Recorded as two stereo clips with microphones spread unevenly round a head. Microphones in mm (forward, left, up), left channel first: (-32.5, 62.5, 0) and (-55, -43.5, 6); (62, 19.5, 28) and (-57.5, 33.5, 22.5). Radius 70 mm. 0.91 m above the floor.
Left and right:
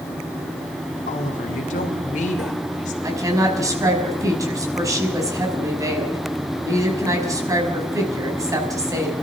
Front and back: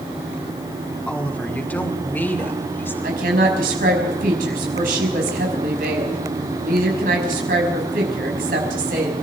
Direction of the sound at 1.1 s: 75° left.